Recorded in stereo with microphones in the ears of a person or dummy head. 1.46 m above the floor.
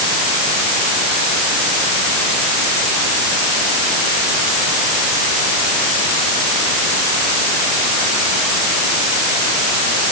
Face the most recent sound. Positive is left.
No sound to turn to.